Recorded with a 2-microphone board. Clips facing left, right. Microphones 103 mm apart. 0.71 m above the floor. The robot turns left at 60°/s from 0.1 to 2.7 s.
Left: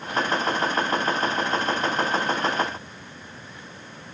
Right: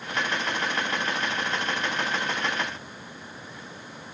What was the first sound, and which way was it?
Only background noise.